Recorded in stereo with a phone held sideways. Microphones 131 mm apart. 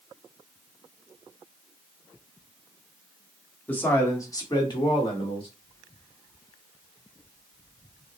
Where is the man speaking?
15° left (ahead or behind), 1.2 m; by 5.5 s 45° left (ahead or behind), 1.6 m.